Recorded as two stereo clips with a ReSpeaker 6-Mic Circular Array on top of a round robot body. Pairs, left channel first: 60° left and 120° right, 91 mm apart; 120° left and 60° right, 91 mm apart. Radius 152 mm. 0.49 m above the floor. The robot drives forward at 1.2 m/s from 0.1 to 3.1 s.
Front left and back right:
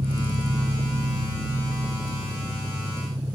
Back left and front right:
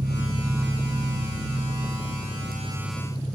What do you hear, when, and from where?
0.0 s an engine running: 85° right, 1.5 m; by 3.4 s 155° right, 4 m